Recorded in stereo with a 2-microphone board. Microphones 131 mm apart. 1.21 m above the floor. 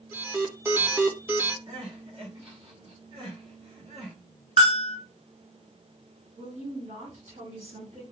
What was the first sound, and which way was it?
An alarm, 15° right (ahead or behind).